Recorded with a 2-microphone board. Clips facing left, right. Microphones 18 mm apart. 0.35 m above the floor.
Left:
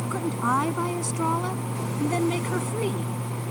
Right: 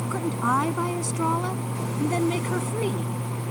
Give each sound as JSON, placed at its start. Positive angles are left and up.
{"t": 0.1, "sound": "a woman speaking", "side_deg": -5}